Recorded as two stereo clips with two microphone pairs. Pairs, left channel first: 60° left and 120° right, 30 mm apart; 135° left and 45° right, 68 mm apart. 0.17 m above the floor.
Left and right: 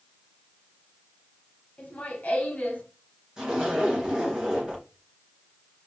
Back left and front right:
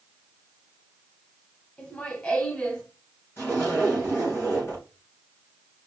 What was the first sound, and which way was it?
Laughter, 75° left.